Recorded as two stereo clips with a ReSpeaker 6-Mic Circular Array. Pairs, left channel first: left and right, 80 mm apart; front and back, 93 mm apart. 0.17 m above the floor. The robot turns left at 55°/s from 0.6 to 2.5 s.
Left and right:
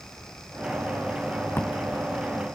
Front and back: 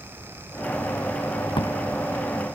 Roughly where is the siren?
I don't hear a siren.